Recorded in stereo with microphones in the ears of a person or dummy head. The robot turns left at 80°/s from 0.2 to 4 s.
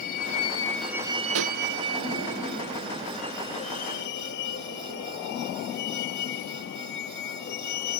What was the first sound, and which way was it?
A vehicle, 50° left (ahead or behind).